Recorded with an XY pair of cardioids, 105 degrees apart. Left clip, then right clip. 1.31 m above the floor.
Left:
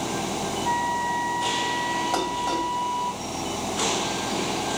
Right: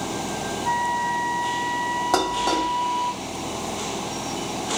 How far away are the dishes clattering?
About 2.5 m.